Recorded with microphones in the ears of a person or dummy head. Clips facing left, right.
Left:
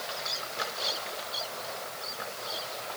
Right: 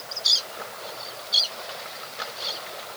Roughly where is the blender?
No blender in this recording.